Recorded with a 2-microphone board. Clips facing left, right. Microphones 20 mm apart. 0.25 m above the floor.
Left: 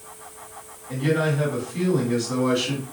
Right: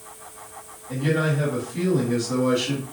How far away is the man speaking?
About 1.6 m.